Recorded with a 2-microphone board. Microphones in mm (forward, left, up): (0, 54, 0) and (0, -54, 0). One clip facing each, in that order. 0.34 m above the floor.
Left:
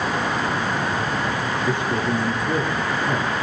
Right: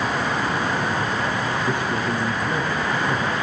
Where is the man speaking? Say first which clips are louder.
Left 1 dB; 20° left (ahead or behind), 6.5 m.